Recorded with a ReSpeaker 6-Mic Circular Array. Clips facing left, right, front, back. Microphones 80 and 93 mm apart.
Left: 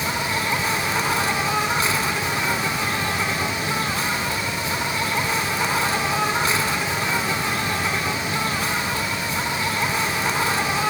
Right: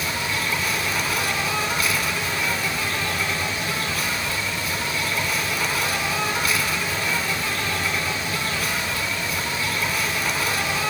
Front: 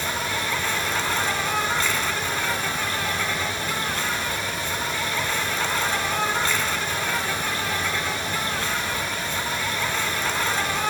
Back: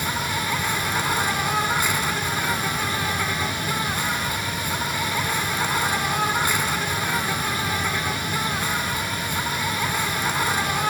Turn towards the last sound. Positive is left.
turn(degrees=115)